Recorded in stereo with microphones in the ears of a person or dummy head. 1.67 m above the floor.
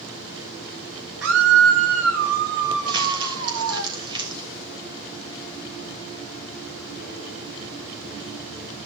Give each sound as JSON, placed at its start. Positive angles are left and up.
{"t": 1.2, "sound": "a scream", "side_deg": -65, "distance_m": 2.0}
{"t": 2.9, "sound": "crumpling", "side_deg": -25, "distance_m": 3.5}